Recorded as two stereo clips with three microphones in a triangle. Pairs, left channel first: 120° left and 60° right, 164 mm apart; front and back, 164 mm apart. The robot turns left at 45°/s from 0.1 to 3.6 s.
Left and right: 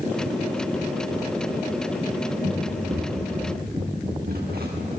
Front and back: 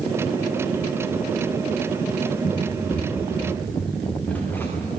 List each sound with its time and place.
2.4 s running footsteps: 40° right, 6.5 m; by 5.0 s 75° right, 6.5 m